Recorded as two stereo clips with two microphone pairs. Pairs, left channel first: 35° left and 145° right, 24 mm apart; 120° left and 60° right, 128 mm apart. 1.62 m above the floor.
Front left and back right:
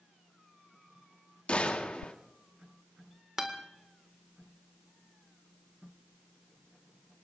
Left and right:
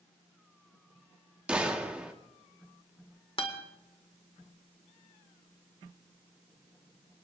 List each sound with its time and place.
1.5 s a gunshot: 20° left, 2.0 m
3.4 s a guitar: 155° left, 2 m